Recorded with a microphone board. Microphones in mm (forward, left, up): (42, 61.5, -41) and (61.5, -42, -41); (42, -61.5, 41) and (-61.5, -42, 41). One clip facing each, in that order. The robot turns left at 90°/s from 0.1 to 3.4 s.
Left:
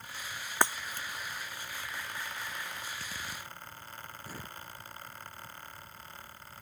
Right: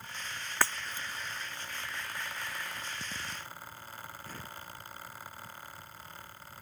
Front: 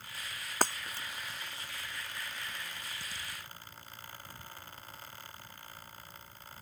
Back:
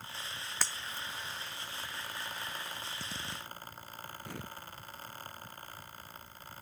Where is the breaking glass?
30° left; by 1.1 s 15° right.